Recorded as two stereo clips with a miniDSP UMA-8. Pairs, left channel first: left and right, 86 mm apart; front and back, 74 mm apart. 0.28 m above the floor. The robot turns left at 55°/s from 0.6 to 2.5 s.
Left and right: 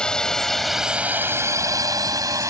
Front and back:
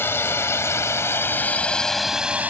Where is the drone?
20° left; by 2.5 s 125° right.